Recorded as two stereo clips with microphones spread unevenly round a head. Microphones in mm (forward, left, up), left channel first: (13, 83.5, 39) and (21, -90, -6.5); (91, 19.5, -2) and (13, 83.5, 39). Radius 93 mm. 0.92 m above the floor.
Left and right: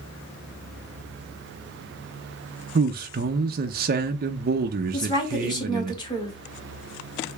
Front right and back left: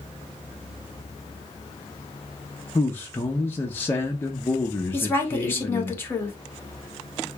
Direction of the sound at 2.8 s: 95° right.